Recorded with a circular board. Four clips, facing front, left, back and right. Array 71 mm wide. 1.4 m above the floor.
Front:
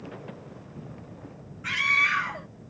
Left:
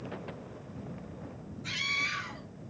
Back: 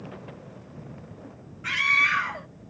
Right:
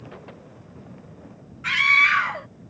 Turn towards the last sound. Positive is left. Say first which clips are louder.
# right 16 dB, back 1 dB
turn(degrees=-95)